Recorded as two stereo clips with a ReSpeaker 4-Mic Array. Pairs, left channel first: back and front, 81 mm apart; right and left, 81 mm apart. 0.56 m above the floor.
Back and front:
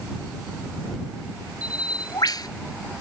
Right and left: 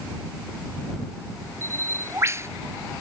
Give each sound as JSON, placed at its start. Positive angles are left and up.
{"t": 1.6, "sound": "a bird", "azimuth_deg": 145}